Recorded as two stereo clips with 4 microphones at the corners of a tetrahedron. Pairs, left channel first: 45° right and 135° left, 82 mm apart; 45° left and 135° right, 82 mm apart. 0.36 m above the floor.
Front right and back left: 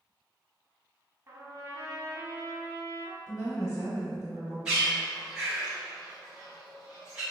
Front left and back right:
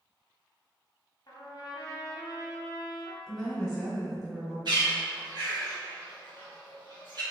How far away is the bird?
About 1.6 m.